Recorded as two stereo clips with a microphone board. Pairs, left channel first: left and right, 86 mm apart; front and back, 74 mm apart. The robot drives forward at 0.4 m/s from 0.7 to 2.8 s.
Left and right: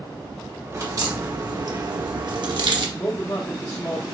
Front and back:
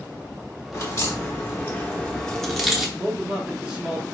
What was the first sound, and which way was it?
A crack, 40° right.